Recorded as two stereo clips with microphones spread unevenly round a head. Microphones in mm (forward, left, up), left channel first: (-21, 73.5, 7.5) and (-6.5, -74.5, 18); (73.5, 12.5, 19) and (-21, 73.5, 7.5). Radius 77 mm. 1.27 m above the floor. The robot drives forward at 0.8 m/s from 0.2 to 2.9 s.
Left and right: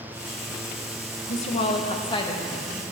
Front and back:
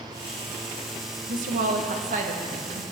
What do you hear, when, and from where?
1.3 s a woman speaking: 140° left, 1.0 m; by 2.8 s 160° left, 2 m